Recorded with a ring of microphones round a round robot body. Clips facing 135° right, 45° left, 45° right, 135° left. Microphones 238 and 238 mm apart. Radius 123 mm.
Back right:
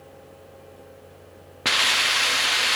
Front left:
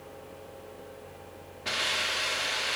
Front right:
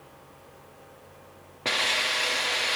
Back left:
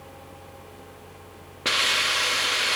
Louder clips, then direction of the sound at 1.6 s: Back right 5 dB, even; 150° right.